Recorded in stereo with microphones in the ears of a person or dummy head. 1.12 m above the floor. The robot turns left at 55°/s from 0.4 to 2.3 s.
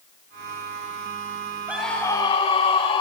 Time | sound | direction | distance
1.7 | a scream | 165° right | 6 m